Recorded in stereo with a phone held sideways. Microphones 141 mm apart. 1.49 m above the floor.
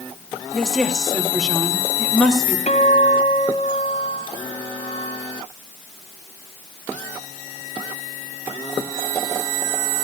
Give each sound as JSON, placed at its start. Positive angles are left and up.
{"t": 0.5, "sound": "a woman speaking", "side_deg": 0, "distance_m": 3.0}
{"t": 2.7, "sound": "a guitar", "side_deg": 55, "distance_m": 2.5}